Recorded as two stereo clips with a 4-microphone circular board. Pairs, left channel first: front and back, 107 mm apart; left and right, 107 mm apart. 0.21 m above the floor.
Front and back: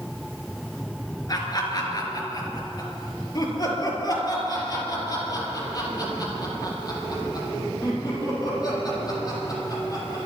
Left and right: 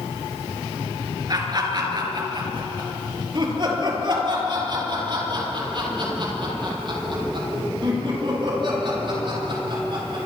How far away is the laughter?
About 3.5 m.